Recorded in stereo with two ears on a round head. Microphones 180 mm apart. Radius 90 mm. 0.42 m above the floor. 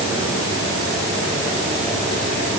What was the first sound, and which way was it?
Only background noise.